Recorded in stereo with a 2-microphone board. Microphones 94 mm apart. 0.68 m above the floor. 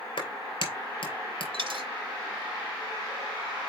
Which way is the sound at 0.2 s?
60° left (ahead or behind).